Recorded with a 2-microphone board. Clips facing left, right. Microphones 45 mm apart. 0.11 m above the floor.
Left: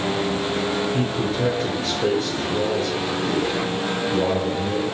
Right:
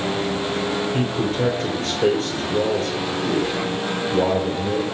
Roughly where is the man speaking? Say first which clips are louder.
Right 1 dB; right.